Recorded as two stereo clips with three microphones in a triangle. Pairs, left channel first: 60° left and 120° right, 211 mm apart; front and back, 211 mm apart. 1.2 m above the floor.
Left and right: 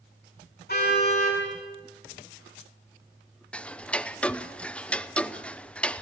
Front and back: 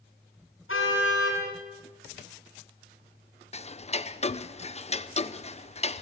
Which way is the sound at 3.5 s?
20° right.